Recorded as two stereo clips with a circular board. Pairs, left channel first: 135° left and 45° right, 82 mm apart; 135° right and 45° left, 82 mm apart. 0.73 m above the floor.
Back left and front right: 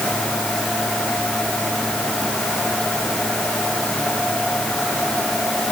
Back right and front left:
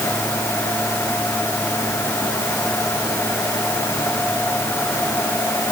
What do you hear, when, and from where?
Only background noise.